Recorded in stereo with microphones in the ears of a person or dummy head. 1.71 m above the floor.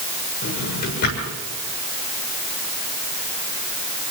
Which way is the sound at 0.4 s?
55° left (ahead or behind).